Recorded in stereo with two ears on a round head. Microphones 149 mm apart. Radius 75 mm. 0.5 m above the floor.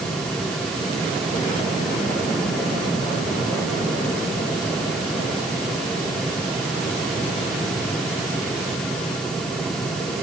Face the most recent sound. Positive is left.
No sound to turn to.